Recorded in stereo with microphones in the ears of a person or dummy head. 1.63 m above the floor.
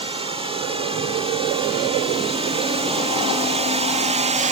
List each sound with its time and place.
0.0 s a drone: 25° right (ahead or behind); by 4.5 s 35° right (ahead or behind)